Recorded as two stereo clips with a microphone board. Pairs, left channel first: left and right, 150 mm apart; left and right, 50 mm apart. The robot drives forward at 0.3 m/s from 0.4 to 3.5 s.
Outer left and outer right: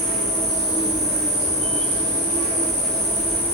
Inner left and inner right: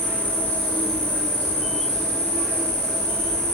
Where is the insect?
30° left (ahead or behind), 1.3 m; by 3.5 s 15° left (ahead or behind), 2 m.